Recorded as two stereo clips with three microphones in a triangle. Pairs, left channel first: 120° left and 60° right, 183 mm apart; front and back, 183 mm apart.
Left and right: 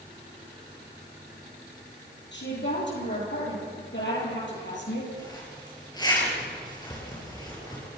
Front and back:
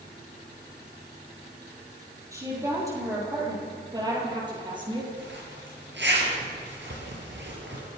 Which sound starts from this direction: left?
A woman speaking, at 2.3 s.